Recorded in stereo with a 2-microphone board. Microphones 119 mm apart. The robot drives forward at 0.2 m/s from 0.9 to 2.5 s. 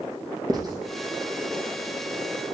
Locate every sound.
0.5 s writing: 35° right (ahead or behind), 3 m